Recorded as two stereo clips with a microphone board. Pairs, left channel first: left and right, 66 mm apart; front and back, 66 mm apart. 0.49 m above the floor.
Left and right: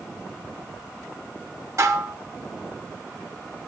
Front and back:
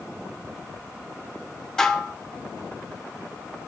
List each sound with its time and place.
1.8 s dishes clattering: 80° right, 0.8 m